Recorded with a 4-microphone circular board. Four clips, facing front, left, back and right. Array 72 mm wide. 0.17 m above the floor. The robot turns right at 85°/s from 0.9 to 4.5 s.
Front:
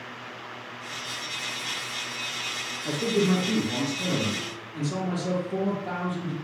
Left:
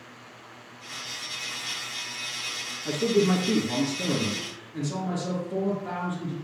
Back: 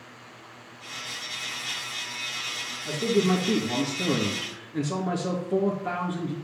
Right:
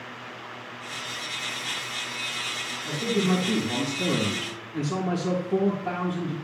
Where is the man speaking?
50° left, 2.5 m; by 6.3 s 170° right, 2.5 m.